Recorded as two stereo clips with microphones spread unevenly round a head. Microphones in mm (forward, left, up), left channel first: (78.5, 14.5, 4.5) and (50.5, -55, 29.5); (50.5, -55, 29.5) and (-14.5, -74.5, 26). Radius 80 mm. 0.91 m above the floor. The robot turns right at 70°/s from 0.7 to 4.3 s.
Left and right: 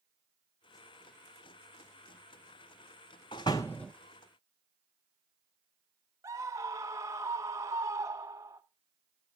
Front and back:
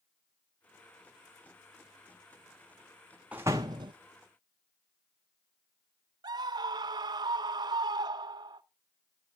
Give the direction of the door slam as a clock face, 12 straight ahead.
8 o'clock.